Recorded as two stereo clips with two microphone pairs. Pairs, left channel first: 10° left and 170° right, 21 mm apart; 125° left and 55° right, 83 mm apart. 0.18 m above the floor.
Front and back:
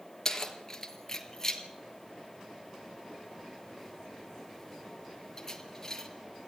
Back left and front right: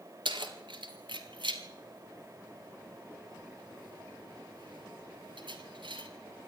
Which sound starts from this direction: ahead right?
Keys jangling, at 0.2 s.